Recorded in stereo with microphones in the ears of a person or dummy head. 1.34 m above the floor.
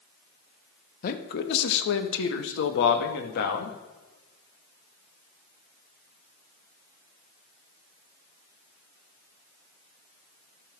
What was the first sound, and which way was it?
A man speaking, 60° left (ahead or behind).